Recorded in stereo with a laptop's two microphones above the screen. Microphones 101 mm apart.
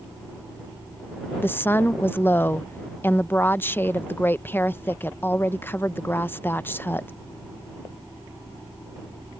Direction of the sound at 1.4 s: 20° left (ahead or behind).